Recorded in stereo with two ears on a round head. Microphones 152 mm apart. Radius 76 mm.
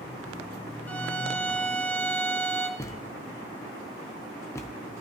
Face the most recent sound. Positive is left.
turn(degrees=15)  # may be behind; listen again after turning